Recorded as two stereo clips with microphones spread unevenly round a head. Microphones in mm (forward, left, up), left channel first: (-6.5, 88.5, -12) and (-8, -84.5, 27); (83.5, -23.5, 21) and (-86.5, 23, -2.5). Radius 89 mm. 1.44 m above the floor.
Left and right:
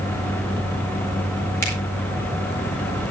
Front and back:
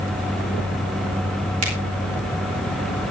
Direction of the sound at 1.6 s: 165° left.